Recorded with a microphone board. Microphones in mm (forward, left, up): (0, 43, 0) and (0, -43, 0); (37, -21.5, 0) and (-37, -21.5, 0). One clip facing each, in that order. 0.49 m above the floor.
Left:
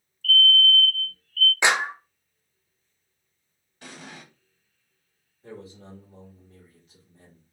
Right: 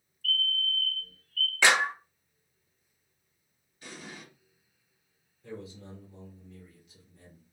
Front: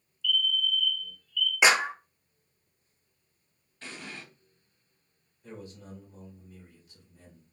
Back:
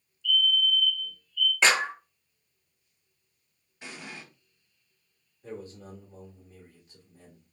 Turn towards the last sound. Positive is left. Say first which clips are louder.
# left 1 dB, back 4 dB
turn(degrees=135)